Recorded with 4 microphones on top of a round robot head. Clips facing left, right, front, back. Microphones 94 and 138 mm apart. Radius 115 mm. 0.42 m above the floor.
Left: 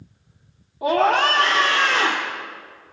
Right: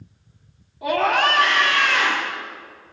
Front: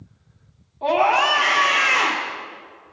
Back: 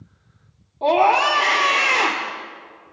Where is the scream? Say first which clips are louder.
Left 2 dB, back 2 dB; 135° left, 2 m.